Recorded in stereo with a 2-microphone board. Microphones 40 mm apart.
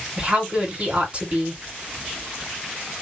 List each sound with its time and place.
0.2 s a woman speaking: 30° right (ahead or behind), 2.0 m